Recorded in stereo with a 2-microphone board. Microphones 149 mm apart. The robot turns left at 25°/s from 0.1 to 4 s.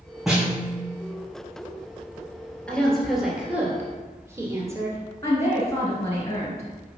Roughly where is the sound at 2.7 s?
Centre.